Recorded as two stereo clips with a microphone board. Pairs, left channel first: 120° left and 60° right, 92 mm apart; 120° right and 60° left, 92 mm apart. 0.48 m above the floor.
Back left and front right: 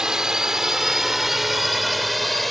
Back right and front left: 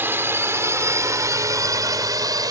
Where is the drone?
15° left; by 2.5 s 30° left.